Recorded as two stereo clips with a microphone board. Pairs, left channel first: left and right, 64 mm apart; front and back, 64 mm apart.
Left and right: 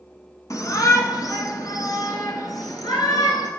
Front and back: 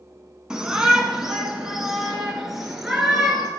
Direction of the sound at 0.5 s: 105° left.